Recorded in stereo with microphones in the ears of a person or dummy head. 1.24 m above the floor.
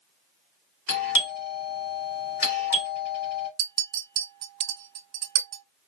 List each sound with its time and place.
0.9 s a doorbell: 45° left (ahead or behind), 1.7 m
3.6 s a clink: 55° right (ahead or behind), 0.7 m